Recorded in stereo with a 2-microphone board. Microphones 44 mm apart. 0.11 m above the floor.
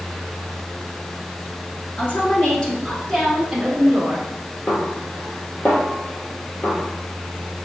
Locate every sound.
2.0 s a woman speaking: 40° left (ahead or behind), 1.3 m; by 4.2 s 30° right (ahead or behind), 1.2 m
4.7 s a snare drum: 35° left (ahead or behind), 1.2 m